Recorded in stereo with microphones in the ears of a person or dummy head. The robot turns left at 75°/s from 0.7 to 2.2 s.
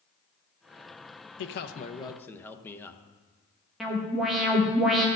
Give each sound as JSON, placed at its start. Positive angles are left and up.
{"t": 1.4, "sound": "a man speaking", "azimuth_deg": 75, "distance_m": 0.6}
{"t": 3.8, "sound": "an alarm", "side_deg": 0, "distance_m": 1.1}